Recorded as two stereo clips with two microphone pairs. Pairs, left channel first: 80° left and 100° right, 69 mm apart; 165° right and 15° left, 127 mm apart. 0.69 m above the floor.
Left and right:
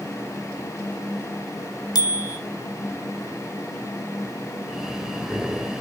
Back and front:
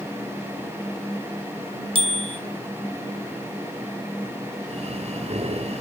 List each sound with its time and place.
1.9 s a bicycle bell: 60° left, 2.5 m
4.7 s breathing: 15° right, 3 m